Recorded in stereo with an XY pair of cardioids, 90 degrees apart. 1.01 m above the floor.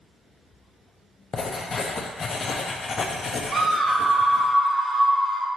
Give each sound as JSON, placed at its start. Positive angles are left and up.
{"t": 1.3, "sound": "writing", "azimuth_deg": 50, "distance_m": 0.6}
{"t": 3.5, "sound": "a scream", "azimuth_deg": -45, "distance_m": 1.2}